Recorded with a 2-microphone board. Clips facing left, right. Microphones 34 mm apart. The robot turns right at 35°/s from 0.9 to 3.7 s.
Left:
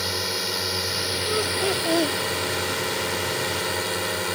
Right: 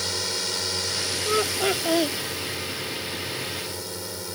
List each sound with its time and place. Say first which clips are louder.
0.0 s a drone: left 2 dB; 10° left; by 4.4 s 110° left
1.2 s laughter: right 2 dB; 40° right; by 2.2 s 5° right